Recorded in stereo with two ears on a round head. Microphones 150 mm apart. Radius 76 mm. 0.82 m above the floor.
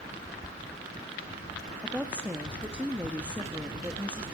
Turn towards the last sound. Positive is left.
turn(degrees=-5)  # may be behind; listen again after turning